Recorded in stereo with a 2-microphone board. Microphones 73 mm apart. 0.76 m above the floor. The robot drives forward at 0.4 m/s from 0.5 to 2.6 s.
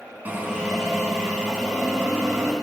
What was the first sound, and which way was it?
A drill, 25° right (ahead or behind).